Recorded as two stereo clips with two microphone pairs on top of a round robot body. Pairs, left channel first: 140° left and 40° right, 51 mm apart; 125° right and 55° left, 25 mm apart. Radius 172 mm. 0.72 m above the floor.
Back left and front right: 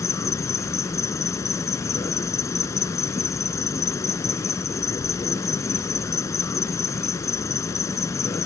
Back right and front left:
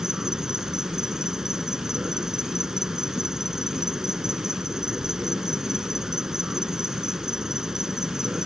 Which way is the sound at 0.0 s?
125° left.